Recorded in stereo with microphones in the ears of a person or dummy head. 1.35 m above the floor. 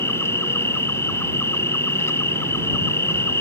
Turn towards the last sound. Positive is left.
turn(degrees=10)  # may be behind; listen again after turning